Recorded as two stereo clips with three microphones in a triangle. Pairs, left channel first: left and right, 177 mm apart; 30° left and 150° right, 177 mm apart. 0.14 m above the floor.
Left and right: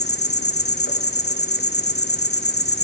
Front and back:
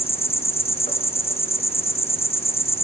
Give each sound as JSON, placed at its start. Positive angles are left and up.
{"t": 0.0, "sound": "an insect", "azimuth_deg": 85, "distance_m": 0.8}